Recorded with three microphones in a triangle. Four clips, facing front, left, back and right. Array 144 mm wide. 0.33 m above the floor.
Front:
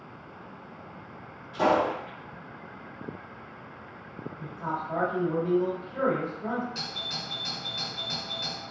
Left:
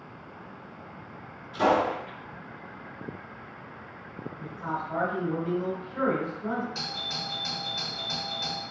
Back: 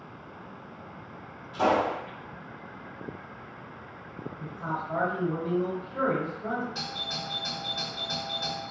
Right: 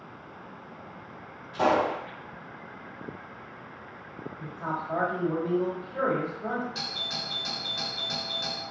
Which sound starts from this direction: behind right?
A doorbell, at 6.8 s.